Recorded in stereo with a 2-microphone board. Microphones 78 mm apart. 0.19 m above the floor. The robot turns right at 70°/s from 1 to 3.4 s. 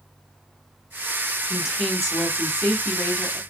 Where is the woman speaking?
10° right (ahead or behind), 1.0 m; by 3.4 s 20° left (ahead or behind), 1.0 m.